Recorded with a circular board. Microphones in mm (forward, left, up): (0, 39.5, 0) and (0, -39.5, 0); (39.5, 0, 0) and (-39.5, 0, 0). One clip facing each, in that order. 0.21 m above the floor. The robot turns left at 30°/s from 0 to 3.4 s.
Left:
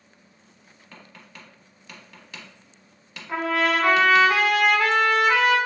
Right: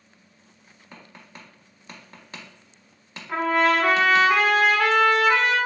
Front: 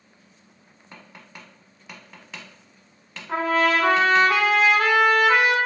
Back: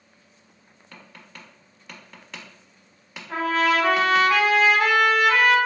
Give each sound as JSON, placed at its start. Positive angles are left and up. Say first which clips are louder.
{"t": 0.9, "sound": "tapping", "louder": "right 1 dB, front 1 dB", "azimuth_deg": -40, "distance_m": 0.7}
{"t": 3.3, "sound": "a trumpet", "louder": "right 2 dB, front 1 dB", "azimuth_deg": 5, "distance_m": 1.0}